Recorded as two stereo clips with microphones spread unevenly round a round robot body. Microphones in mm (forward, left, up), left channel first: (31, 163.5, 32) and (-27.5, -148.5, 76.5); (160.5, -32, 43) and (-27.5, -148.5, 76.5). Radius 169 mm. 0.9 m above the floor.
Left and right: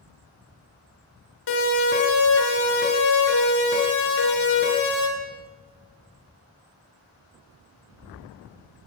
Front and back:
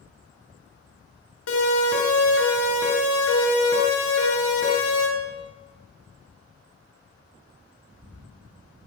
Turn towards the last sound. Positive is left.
turn(degrees=40)